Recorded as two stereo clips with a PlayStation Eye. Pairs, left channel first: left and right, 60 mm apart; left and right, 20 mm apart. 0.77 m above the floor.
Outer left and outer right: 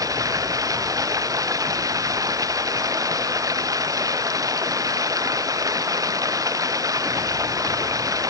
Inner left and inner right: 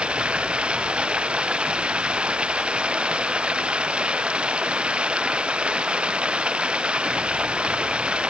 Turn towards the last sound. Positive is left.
turn(degrees=-75)  # may be behind; listen again after turning